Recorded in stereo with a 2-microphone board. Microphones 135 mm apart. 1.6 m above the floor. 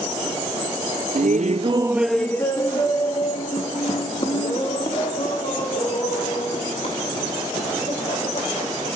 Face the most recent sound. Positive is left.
turn(degrees=50)  # may be behind; listen again after turning